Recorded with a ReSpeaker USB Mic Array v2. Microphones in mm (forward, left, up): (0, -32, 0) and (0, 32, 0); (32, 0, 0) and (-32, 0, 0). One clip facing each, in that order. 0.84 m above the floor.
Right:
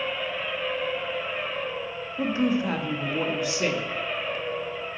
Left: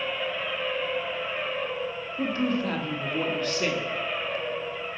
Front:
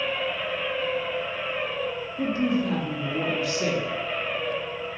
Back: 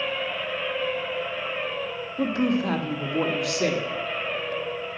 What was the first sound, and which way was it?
A woman speaking, 170° right.